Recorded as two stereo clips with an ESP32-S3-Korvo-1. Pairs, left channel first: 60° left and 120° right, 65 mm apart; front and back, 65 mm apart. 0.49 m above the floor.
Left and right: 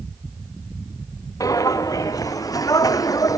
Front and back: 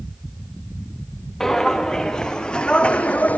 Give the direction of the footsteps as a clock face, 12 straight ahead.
9 o'clock.